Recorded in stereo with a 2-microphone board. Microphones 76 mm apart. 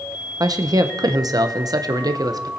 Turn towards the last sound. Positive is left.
turn(degrees=-55)  # may be behind; listen again after turning